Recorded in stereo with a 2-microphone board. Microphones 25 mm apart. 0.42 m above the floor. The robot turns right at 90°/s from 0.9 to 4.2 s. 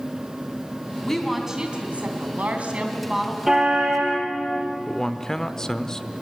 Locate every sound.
1.0 s a woman speaking: 155° left, 3 m; by 3.4 s 5° left, 3 m
3.5 s a car horn: 165° right, 6 m; by 4.2 s 100° right, 6 m
4.9 s a man speaking: 20° left (ahead or behind), 0.8 m